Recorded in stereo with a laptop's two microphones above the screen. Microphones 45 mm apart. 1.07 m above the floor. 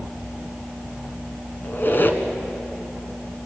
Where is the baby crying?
I don't hear a baby crying.